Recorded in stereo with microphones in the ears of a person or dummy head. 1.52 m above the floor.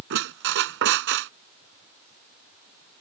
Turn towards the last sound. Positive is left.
turn(degrees=-70)  # may be behind; listen again after turning